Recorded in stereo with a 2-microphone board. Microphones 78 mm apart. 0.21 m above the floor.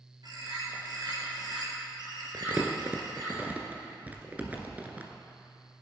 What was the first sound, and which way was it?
A bird, 60° right (ahead or behind).